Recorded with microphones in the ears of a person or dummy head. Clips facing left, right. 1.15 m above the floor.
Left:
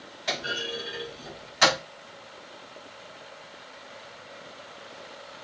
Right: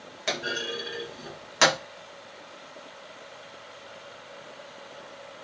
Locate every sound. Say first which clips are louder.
0.3 s a clunk: right 1 dB; 55° right (ahead or behind), 0.8 m